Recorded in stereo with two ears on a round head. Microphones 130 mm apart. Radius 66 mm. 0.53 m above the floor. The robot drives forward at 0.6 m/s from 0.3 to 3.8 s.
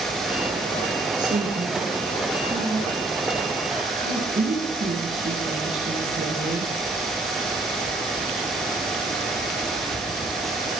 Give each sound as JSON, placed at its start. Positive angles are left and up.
{"t": 1.2, "sound": "a woman speaking", "side_deg": -60, "distance_m": 7.5}